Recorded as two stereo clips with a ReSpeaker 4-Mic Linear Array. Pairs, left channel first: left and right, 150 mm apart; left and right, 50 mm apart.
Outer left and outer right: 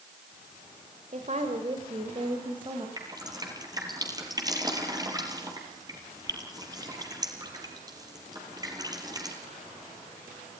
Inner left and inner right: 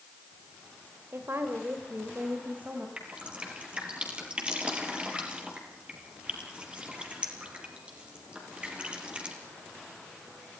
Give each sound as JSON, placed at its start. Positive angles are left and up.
{"t": 1.1, "sound": "a woman speaking", "side_deg": -55, "distance_m": 2.0}
{"t": 3.0, "sound": "dripping", "side_deg": -25, "distance_m": 4.0}